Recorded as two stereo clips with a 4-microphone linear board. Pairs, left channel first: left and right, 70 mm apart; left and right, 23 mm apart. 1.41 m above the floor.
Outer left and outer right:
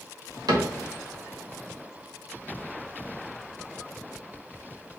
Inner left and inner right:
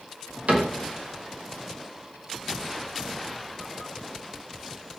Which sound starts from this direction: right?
A cupboard door, at 0.5 s.